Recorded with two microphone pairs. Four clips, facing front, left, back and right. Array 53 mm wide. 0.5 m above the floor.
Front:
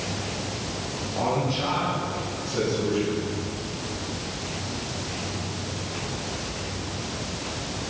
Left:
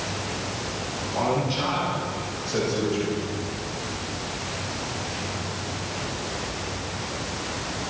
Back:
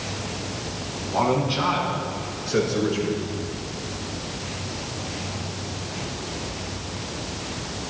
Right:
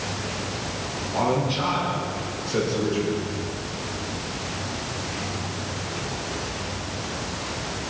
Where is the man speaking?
165° right, 5.5 m; by 3.3 s 175° right, 7.5 m.